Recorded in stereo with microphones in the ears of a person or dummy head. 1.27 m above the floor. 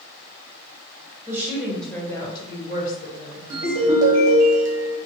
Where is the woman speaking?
15° right (ahead or behind), 1.0 m; by 4.2 s 75° left (ahead or behind), 1.4 m.